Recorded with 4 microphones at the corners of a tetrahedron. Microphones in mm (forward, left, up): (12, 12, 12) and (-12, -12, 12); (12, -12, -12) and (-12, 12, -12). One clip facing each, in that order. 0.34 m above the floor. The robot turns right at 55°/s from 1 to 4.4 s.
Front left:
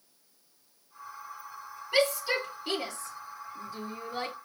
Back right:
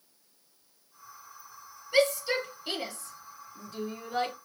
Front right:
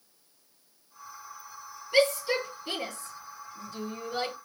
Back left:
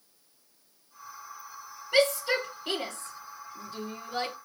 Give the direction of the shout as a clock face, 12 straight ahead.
9 o'clock.